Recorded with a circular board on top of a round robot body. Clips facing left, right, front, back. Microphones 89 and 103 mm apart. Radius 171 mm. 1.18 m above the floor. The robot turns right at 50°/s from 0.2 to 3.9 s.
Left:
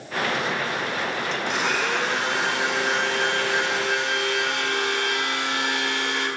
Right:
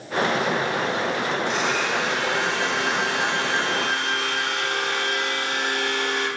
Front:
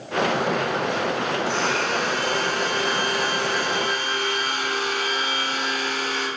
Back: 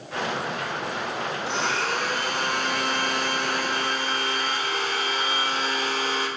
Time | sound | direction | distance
1.5 | a blender | 110° left | 1.2 m